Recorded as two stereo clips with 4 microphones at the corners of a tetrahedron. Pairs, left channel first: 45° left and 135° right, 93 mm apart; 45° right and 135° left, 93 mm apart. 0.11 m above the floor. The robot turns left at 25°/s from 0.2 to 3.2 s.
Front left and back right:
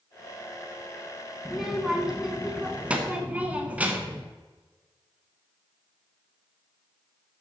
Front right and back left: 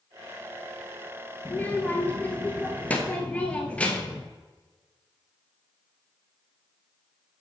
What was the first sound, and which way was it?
A child speaking, 50° right.